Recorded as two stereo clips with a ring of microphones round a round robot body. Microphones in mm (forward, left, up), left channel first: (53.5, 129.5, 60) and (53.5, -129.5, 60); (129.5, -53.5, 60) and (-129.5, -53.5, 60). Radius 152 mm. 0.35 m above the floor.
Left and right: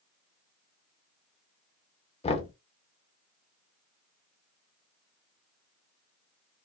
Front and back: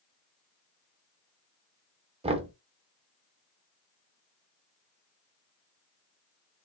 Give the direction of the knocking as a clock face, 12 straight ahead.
8 o'clock.